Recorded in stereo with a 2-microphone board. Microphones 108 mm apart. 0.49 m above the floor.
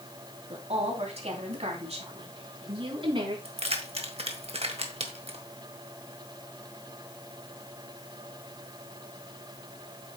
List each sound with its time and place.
0.5 s a woman speaking: 70° right (ahead or behind), 3 m; by 3.4 s 50° right (ahead or behind), 4 m
3.5 s keys jangling: 70° right (ahead or behind), 1.5 m